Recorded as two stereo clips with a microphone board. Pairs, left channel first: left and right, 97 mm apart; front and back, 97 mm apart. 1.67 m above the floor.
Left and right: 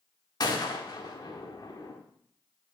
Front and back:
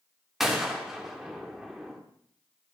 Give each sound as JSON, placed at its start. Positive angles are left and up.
{"t": 0.4, "sound": "a gunshot", "azimuth_deg": 95, "distance_m": 1.6}